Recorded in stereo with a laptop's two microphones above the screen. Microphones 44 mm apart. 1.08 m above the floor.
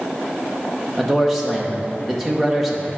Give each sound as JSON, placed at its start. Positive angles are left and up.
{"t": 1.0, "sound": "a man speaking", "side_deg": 0, "distance_m": 0.9}